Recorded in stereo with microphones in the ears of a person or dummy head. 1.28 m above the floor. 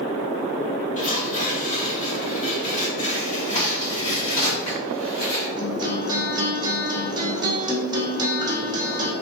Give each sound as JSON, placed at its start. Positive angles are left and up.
{"t": 1.0, "sound": "tearing paper", "side_deg": 45, "distance_m": 1.3}
{"t": 3.5, "sound": "a crack", "side_deg": 40, "distance_m": 1.6}
{"t": 5.6, "sound": "a guitar", "side_deg": -25, "distance_m": 0.6}